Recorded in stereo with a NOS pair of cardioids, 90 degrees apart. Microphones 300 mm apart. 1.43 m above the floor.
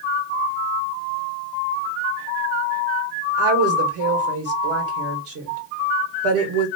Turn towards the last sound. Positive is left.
turn(degrees=-50)